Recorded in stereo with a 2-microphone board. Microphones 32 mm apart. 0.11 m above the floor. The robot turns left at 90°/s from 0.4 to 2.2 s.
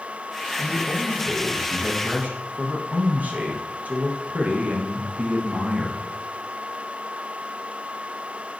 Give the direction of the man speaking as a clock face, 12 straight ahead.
10 o'clock.